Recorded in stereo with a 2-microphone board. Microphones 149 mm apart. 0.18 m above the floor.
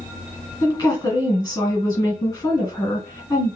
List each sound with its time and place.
0.6 s a woman speaking: 30° left (ahead or behind), 1.7 m